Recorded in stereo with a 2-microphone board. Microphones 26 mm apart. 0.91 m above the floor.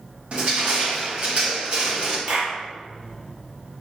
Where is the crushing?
50° right (ahead or behind), 1.5 m.